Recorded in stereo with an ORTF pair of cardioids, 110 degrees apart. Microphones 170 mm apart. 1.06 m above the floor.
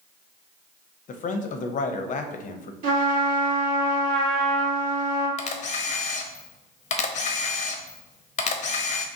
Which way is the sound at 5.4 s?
45° left.